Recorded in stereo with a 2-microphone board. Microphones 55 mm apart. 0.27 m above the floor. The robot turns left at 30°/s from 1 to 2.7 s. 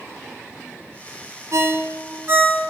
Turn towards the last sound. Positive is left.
turn(degrees=-30)  # may be behind; listen again after turning